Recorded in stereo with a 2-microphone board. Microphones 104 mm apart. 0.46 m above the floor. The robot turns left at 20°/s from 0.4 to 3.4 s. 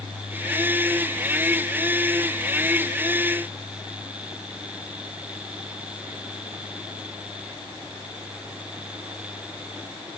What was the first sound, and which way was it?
Only background noise.